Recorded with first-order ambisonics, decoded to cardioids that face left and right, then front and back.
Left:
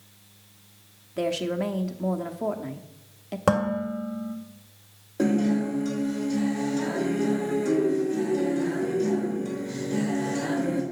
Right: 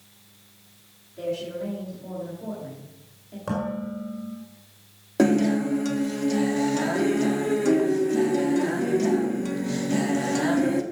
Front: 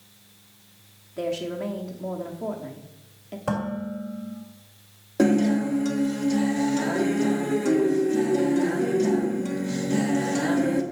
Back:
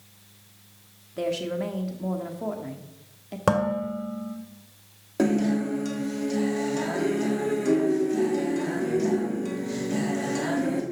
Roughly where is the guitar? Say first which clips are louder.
Right 4 dB, front 3 dB; right.